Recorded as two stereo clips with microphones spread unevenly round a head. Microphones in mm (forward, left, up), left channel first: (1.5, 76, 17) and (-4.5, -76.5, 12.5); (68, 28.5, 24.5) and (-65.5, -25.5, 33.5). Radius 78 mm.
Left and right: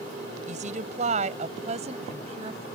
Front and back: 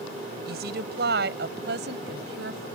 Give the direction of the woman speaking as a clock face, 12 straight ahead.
5 o'clock.